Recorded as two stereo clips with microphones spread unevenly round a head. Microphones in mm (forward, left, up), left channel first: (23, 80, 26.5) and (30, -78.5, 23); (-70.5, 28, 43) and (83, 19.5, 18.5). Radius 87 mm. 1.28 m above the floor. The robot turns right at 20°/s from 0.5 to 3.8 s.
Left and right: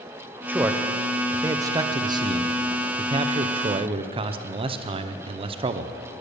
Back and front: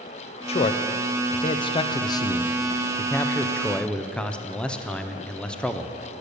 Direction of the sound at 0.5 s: 155° right.